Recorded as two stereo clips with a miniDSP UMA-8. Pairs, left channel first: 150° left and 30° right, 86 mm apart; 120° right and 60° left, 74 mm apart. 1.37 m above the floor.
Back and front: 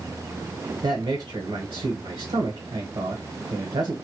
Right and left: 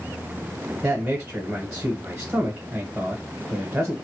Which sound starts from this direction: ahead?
A man speaking, at 0.8 s.